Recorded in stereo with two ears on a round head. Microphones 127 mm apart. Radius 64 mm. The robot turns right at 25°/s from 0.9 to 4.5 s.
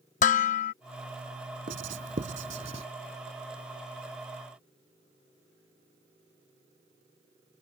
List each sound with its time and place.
0.2 s dishes clattering: 55° left (ahead or behind)
1.7 s writing: 65° right (ahead or behind); by 2.9 s 45° right (ahead or behind)